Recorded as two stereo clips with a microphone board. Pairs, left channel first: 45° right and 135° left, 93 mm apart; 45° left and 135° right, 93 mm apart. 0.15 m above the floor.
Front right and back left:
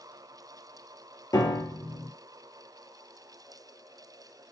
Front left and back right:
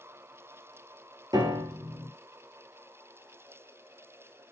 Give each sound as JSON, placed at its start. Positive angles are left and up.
{"t": 1.3, "sound": "a piano", "azimuth_deg": -90, "distance_m": 0.7}